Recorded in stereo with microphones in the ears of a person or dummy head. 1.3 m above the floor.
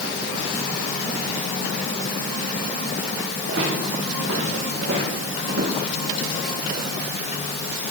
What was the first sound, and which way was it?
Footsteps, 75° right (ahead or behind).